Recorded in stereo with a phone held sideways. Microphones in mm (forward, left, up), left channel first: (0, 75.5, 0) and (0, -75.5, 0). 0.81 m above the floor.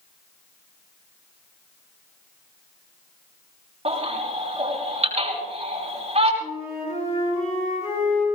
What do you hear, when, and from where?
3.9 s a baby crying: 45° right (ahead or behind), 4.5 m
6.4 s a flute: 45° left (ahead or behind), 9 m